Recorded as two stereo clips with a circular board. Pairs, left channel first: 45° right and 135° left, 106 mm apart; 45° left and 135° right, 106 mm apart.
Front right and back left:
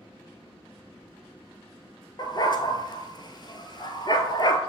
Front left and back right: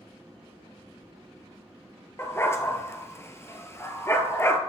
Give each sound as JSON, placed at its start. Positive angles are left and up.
{"t": 2.2, "sound": "a dog barking", "azimuth_deg": -15, "distance_m": 0.9}